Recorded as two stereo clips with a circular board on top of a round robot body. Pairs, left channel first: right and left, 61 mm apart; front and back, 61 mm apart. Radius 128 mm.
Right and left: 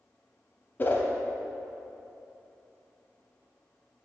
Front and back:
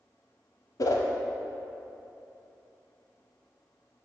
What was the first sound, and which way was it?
A whoosh, 30° right.